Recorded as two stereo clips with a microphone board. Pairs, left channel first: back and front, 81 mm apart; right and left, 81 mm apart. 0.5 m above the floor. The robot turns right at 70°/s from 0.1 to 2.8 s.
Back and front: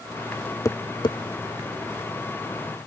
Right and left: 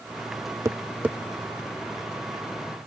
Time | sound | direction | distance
0.7 | tapping | 135° left | ?